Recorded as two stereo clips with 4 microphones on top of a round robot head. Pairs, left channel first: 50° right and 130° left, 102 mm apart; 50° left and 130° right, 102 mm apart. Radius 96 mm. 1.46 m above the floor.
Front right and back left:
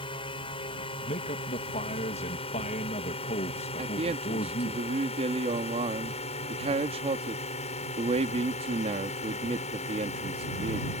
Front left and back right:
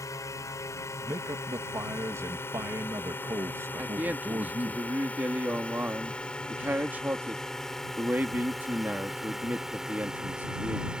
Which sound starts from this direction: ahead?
A drone, at 0.0 s.